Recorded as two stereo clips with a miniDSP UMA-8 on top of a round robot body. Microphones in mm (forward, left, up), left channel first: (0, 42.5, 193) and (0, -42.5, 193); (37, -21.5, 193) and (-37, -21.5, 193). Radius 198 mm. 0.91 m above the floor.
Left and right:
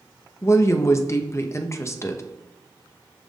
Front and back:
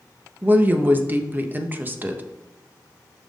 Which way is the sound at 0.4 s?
130° left.